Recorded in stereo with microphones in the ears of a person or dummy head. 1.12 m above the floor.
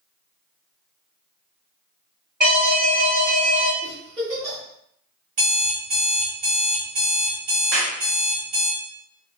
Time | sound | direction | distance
2.4 | an alarm | 40° right (ahead or behind) | 1.4 m
3.8 | a giggle | 30° right (ahead or behind) | 1.2 m
5.4 | an alarm clock | 45° right (ahead or behind) | 1.3 m
7.7 | a clap | 50° right (ahead or behind) | 0.8 m